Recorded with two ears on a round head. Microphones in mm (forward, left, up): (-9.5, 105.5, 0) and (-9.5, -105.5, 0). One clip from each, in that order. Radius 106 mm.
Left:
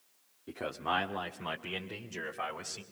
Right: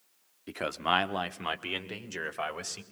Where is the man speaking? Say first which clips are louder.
Right 5 dB; 65° right (ahead or behind), 1.4 m; by 2.8 s 45° right (ahead or behind), 3.5 m.